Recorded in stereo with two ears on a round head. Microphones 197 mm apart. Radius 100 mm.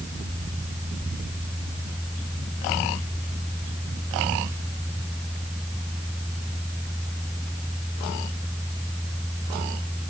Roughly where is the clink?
No clink in this recording.